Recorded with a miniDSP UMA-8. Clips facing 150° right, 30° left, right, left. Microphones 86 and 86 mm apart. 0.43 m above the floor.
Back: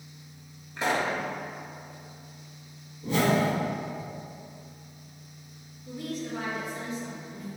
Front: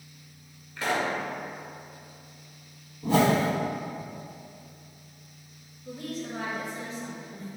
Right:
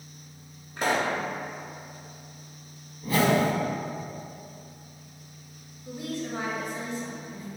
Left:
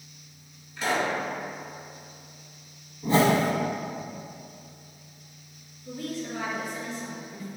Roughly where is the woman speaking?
Ahead.